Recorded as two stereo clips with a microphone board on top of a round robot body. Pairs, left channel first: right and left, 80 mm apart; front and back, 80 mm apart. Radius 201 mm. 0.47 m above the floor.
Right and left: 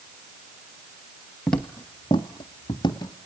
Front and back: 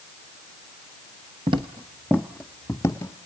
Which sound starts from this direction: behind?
Footsteps, at 1.5 s.